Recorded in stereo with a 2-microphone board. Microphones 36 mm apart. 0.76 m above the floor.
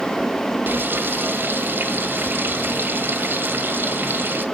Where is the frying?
80° right, 1.3 m.